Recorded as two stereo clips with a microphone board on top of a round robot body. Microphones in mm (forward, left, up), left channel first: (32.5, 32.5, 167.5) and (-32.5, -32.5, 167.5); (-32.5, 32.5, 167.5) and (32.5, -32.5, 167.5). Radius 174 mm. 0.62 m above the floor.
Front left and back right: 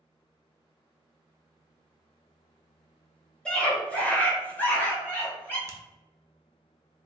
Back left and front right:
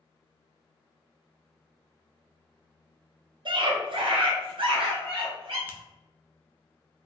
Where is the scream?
35° right, 1.3 m; by 5.6 s 20° right, 2.5 m.